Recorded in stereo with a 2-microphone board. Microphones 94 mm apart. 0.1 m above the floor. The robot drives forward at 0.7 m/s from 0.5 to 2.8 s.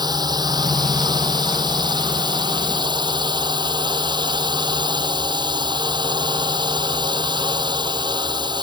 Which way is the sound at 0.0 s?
50° right (ahead or behind).